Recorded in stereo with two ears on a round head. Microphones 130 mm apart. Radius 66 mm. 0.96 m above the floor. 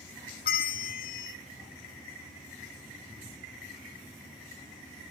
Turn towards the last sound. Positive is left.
turn(degrees=70)  # may be behind; listen again after turning